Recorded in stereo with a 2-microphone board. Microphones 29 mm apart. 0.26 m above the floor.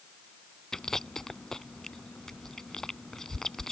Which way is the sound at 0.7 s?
15° left (ahead or behind).